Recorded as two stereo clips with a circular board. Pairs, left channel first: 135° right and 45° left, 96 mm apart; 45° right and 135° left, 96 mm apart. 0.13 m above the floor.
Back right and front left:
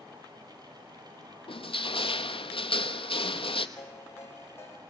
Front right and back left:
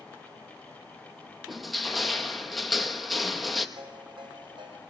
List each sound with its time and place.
1.5 s crushing: 135° right, 1.0 m
3.8 s a ringtone: 165° left, 3 m